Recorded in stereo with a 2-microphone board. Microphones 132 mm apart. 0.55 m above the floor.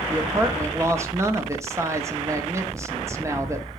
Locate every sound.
0.1 s a woman speaking: 20° right (ahead or behind), 0.6 m